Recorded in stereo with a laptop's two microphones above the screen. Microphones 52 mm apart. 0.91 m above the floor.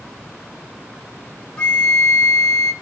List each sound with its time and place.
1.6 s a flute: 20° left (ahead or behind), 0.9 m